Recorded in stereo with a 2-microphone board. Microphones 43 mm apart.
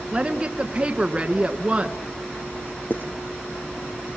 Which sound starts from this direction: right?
A woman speaking, at 0.1 s.